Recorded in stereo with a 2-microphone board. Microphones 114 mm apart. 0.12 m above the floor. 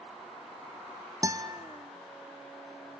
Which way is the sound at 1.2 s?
30° right (ahead or behind).